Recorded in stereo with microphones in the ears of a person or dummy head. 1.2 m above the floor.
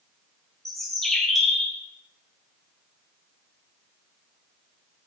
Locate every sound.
0.7 s a bird: centre (ahead or behind), 0.7 m